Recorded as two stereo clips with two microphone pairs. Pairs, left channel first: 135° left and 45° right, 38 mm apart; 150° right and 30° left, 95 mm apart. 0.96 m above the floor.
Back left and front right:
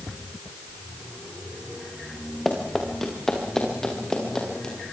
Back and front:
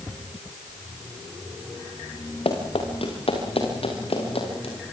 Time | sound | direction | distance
2.5 | running footsteps | 140° right | 5.5 m